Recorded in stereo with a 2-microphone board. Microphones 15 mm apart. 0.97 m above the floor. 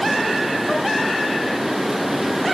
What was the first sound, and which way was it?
Only background noise.